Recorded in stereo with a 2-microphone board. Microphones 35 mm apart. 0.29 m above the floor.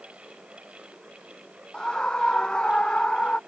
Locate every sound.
1.7 s a scream: 20° left (ahead or behind); by 3.4 s 25° left (ahead or behind)